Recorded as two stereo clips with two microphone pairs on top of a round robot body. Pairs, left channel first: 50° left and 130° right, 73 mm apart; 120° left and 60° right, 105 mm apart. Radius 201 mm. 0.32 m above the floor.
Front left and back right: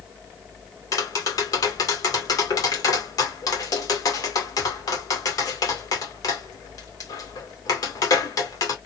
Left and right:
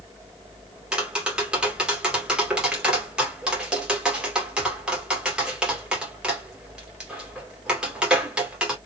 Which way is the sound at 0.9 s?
15° left.